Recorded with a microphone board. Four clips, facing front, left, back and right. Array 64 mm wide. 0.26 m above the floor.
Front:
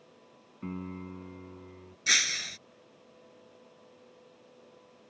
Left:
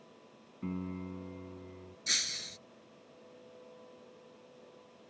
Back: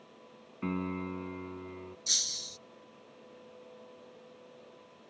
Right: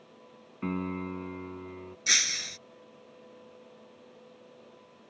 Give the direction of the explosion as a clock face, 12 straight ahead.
No explosion in this recording.